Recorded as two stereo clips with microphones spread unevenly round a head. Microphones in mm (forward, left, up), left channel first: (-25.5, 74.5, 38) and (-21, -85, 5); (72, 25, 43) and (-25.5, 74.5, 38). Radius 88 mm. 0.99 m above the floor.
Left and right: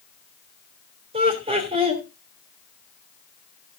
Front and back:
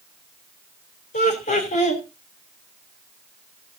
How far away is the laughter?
About 2.5 m.